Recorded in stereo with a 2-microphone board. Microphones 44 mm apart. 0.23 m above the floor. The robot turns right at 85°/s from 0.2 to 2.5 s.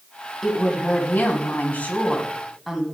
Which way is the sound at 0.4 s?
10° left.